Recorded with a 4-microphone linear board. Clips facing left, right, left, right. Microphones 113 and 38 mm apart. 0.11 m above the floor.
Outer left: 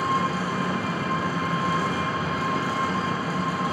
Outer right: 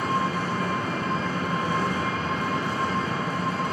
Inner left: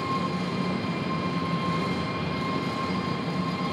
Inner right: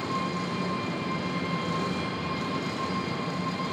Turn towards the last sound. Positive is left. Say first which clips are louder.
# outer left 1 dB, inner left 2 dB
turn(degrees=5)  # may be behind; listen again after turning